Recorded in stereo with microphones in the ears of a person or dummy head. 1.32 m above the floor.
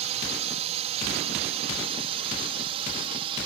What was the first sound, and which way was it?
A drone, 35° right (ahead or behind).